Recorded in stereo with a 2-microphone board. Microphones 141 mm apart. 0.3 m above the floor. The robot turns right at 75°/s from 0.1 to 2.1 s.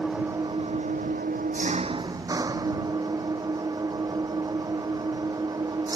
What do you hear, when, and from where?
0.0 s an engine running: 175° right; by 6.0 s 25° right